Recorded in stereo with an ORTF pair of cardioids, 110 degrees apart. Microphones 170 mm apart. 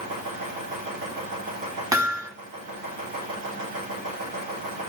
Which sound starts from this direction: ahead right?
A machine running, at 0.0 s.